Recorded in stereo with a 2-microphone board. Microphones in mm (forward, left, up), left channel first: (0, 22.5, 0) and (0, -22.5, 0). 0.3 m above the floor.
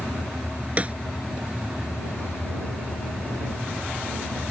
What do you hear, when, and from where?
0.8 s a snare drum: 30° right (ahead or behind)